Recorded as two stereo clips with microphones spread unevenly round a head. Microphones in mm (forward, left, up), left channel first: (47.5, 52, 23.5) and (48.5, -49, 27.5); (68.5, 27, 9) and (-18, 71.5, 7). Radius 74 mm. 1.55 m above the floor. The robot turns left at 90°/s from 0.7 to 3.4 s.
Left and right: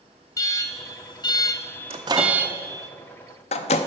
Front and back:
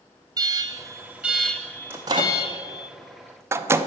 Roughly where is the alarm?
Behind left.